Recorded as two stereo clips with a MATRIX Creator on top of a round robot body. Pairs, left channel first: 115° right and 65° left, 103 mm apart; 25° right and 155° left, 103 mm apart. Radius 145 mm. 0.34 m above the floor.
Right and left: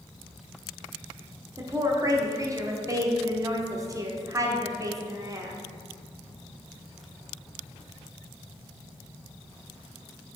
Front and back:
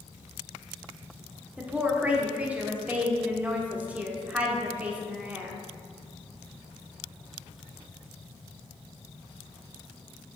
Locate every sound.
1.6 s a woman speaking: 90° left, 1.4 m